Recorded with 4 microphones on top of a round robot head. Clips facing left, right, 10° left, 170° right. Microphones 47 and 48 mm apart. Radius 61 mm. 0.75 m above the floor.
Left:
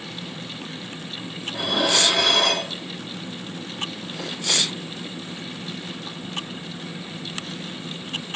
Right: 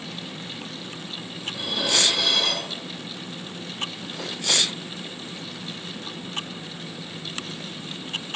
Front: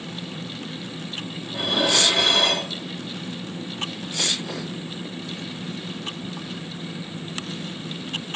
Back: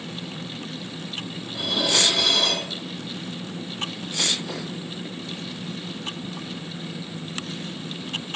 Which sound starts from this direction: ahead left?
Dishes clattering, at 1.5 s.